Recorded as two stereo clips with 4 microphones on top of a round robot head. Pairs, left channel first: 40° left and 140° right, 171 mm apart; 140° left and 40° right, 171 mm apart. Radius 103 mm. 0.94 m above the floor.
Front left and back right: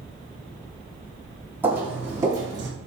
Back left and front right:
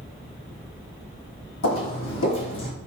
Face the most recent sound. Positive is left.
turn(degrees=150)